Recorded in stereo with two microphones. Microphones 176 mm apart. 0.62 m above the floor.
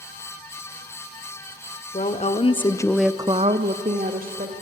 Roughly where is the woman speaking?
Left.